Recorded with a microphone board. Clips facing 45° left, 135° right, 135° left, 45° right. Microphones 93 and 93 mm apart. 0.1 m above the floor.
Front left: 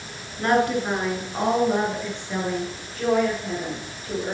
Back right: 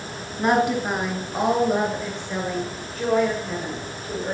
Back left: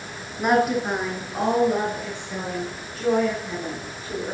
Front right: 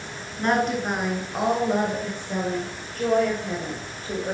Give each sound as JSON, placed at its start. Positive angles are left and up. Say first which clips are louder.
{"t": 0.4, "sound": "a woman speaking", "louder": "back right 1 dB, back left 3 dB", "azimuth_deg": -170, "distance_m": 1.5}